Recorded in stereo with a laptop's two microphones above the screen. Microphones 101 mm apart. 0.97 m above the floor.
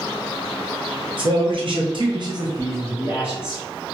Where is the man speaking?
55° right (ahead or behind), 1.1 m; by 3.6 s 5° right (ahead or behind), 1.0 m.